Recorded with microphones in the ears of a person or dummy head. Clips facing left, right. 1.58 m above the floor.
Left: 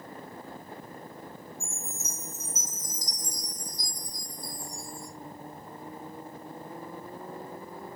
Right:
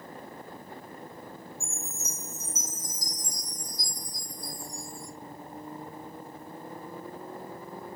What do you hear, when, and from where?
1.6 s a chime: 5° right (ahead or behind), 1.2 m